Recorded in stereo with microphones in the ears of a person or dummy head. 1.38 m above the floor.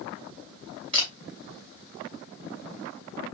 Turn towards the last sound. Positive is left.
turn(degrees=-30)  # may be behind; listen again after turning